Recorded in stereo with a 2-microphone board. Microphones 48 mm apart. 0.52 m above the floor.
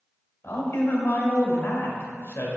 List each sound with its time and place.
0.4 s a man speaking: 65° left (ahead or behind), 1.7 m